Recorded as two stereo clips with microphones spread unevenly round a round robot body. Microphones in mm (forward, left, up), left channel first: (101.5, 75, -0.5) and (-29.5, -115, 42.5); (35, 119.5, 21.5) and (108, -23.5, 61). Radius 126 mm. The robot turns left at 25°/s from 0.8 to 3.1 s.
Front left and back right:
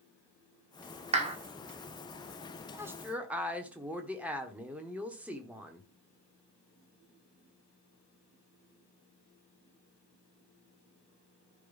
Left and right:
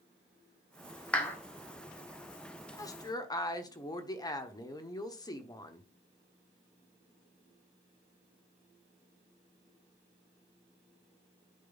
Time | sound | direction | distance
1.1 | a clap | 175° left | 1.3 m
2.7 | a woman speaking | 150° left | 1.1 m